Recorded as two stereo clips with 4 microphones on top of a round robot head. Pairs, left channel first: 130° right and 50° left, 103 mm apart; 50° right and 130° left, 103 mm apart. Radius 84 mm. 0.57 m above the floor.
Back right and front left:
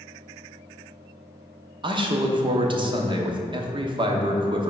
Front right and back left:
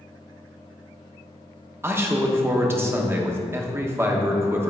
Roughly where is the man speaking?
Left.